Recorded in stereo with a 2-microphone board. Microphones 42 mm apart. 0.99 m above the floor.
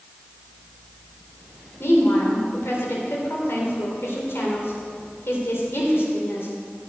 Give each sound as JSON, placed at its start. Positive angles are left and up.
{"t": 1.8, "sound": "a woman speaking", "side_deg": 75, "distance_m": 3.5}